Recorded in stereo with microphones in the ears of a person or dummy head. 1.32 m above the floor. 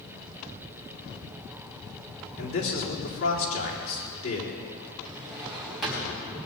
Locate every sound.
2.4 s a man speaking: 85° left, 4 m
5.0 s a drawer: centre (ahead or behind), 4.5 m